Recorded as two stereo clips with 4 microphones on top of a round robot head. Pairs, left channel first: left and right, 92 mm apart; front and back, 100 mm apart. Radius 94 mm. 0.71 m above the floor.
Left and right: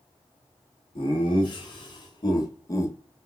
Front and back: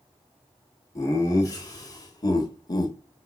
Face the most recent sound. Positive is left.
turn(degrees=30)